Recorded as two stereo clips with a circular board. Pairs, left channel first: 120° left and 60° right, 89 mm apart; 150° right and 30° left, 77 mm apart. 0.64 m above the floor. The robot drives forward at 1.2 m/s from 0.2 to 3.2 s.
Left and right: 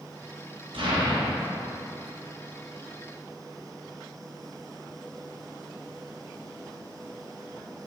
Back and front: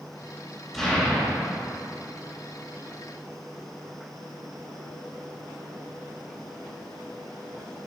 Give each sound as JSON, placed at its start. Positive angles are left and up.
{"t": 0.7, "sound": "an explosion", "azimuth_deg": -65, "distance_m": 3.0}